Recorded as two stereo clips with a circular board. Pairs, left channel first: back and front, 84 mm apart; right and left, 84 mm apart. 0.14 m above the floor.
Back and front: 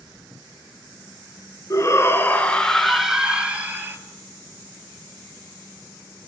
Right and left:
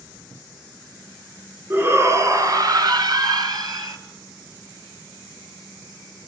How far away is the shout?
About 2.5 m.